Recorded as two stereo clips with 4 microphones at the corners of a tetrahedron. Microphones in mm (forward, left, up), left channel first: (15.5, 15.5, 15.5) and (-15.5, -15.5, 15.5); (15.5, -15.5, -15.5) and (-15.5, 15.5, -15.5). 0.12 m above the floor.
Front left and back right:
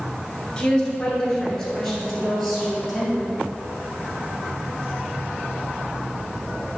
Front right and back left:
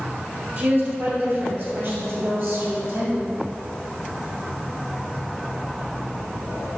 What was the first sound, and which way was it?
A woman speaking, 115° left.